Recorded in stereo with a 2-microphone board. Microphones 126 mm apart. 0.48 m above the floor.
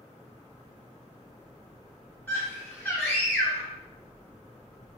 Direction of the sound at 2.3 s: 15° left (ahead or behind).